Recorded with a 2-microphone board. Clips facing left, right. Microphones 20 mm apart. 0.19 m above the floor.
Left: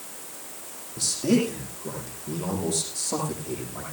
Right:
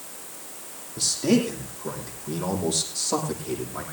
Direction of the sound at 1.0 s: 15° right (ahead or behind).